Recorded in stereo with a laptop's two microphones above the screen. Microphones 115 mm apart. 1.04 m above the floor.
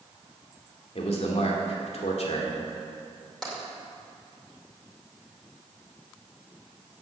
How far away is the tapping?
About 2 m.